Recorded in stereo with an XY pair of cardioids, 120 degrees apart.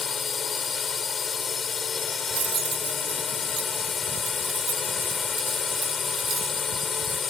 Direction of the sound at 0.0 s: 35° left.